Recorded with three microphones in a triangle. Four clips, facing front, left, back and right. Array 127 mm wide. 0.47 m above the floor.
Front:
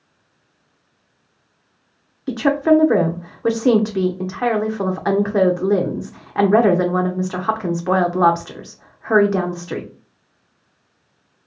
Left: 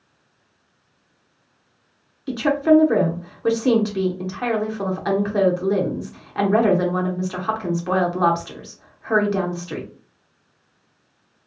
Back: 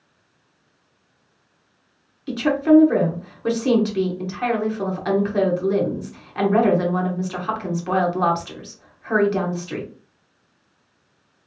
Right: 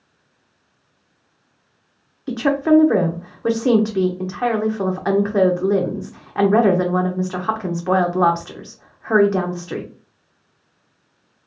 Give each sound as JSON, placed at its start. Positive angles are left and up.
{"t": 2.3, "sound": "a woman speaking", "azimuth_deg": -25, "distance_m": 0.8}